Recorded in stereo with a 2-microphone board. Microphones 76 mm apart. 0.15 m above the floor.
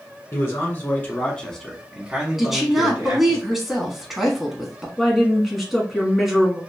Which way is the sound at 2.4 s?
Centre (ahead or behind).